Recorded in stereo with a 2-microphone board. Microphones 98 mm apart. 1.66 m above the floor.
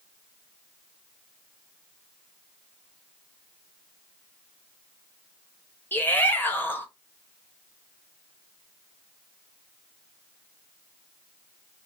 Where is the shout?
20° left (ahead or behind), 0.9 m.